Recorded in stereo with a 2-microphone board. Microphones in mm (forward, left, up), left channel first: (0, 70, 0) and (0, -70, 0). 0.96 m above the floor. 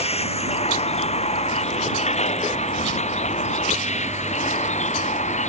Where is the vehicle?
45° left (ahead or behind); by 5.5 s 55° left (ahead or behind).